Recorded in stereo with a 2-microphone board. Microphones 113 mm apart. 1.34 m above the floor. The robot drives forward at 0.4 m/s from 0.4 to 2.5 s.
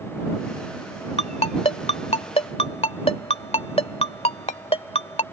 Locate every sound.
1.2 s a ringtone: 70° left (ahead or behind); by 5.2 s 65° left (ahead or behind)